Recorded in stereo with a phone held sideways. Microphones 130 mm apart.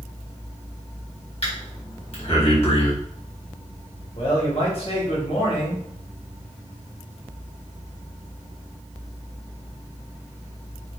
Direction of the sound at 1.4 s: 50° left (ahead or behind).